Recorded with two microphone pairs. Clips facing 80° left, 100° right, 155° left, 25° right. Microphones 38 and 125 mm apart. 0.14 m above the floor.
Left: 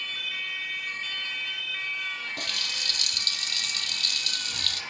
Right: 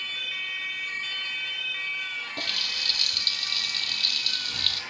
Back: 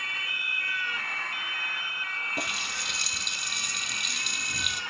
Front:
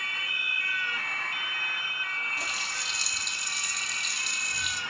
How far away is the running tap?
About 2.5 m.